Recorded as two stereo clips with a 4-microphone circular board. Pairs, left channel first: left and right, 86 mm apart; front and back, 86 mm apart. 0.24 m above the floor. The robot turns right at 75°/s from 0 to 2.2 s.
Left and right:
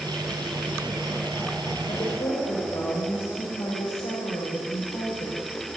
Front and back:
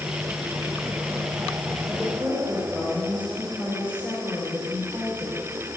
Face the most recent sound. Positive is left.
turn(degrees=110)